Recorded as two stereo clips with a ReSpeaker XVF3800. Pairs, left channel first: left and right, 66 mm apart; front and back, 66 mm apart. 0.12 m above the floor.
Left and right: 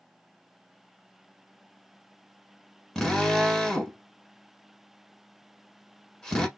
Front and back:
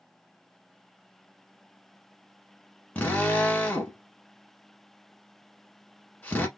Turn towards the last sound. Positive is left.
turn(degrees=25)